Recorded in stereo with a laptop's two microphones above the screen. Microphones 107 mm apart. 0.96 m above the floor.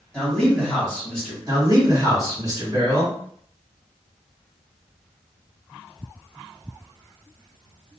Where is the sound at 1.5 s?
35° right (ahead or behind), 1.9 m.